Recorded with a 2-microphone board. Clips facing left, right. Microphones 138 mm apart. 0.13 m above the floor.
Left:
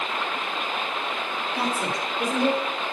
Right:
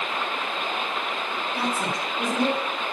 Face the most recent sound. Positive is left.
turn(degrees=0)  # may be behind; listen again after turning